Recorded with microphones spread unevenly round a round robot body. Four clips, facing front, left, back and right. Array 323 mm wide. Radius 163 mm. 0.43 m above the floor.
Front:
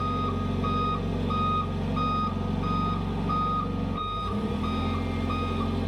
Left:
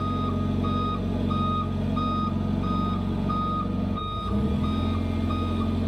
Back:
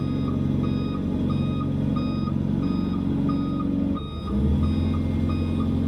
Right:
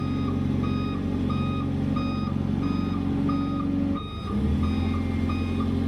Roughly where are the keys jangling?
I don't hear keys jangling.